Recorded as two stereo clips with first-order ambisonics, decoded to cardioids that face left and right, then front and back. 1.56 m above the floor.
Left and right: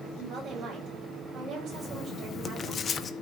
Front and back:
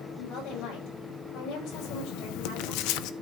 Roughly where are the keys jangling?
No keys jangling in this recording.